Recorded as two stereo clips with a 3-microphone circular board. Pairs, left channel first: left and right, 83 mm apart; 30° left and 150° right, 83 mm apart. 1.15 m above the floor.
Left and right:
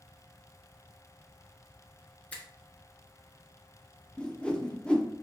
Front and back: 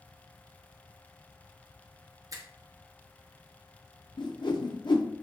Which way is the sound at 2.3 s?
165° left.